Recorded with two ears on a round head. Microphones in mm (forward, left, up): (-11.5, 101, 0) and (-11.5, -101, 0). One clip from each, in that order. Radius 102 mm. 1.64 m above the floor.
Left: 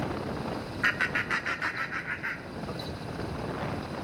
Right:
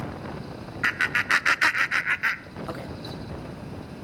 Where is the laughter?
10° right (ahead or behind), 0.7 m; by 2.9 s 65° right (ahead or behind), 1.0 m.